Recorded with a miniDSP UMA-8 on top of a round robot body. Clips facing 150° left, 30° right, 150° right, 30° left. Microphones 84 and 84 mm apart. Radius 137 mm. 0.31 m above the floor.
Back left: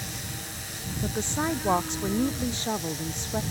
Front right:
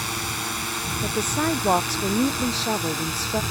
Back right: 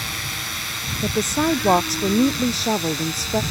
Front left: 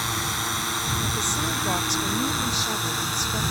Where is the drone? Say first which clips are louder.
Front right 9 dB, front left 3 dB; 25° right; by 3.5 s 20° right.